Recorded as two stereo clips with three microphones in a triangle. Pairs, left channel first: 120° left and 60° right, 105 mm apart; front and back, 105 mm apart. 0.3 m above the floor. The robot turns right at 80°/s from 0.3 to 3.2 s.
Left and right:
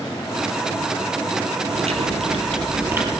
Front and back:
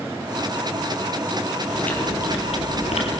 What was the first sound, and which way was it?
Chewing, 90° right.